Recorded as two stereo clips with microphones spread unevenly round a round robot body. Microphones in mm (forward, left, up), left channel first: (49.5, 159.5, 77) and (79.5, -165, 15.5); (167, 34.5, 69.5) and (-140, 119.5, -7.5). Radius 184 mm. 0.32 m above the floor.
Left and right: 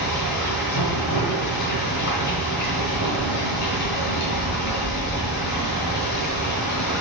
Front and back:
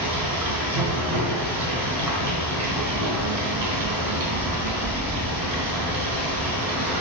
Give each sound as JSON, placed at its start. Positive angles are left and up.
{"t": 0.0, "sound": "running water", "azimuth_deg": 140, "distance_m": 4.0}